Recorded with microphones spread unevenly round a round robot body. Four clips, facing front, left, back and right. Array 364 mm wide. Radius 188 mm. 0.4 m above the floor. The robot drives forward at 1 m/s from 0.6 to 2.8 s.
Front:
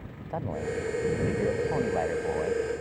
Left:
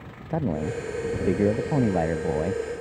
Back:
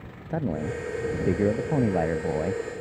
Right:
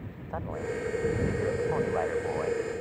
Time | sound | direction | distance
0.3 | a man speaking | 120° left | ?